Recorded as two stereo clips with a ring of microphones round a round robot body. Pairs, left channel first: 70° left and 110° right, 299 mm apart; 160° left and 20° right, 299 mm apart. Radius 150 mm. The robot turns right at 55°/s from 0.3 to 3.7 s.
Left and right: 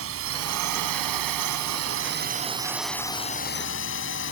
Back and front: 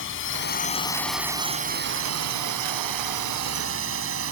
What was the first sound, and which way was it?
A drone, 155° right.